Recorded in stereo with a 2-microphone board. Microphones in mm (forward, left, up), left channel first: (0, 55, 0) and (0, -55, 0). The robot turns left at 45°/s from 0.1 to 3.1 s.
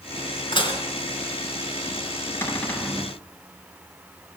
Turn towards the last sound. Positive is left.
turn(degrees=-5)